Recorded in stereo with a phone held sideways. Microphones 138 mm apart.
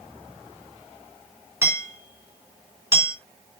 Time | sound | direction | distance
1.6 | hammering | 20° right (ahead or behind) | 3.5 m